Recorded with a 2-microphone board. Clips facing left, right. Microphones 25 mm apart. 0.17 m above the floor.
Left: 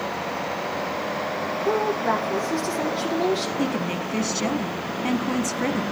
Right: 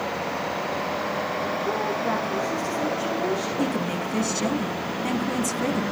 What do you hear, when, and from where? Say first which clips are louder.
1.6 s a woman speaking: left 6 dB; 60° left (ahead or behind), 6 m
3.6 s a woman speaking: even; 20° left (ahead or behind), 1.4 m